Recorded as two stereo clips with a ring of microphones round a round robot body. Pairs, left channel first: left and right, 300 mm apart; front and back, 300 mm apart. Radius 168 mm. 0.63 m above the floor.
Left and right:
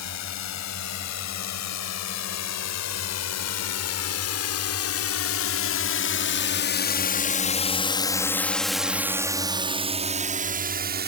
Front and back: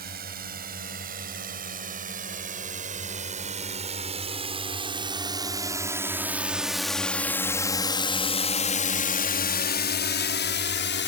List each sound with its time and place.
0.0 s a drone: 115° left; by 11.1 s 40° right